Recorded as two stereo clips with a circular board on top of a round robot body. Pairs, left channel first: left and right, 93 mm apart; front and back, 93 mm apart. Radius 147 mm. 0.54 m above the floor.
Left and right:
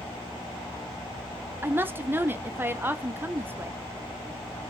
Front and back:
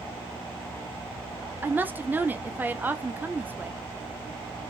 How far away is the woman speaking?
About 0.8 m.